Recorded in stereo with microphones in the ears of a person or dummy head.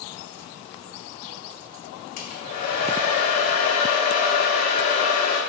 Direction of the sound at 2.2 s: 45° left (ahead or behind).